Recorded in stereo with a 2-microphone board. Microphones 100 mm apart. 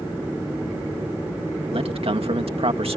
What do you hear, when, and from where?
1.7 s a man speaking: 75° right (ahead or behind)